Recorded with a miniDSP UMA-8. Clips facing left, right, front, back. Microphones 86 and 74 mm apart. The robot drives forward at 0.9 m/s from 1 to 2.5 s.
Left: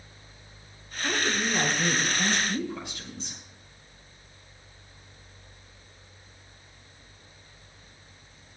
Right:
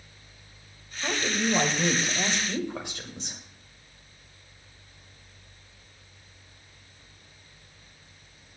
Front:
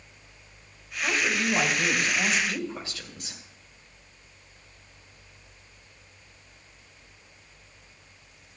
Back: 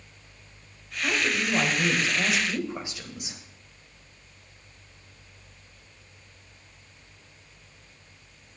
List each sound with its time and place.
1.0 s a woman speaking: 80° right, 2.5 m; by 3.4 s 105° right, 3 m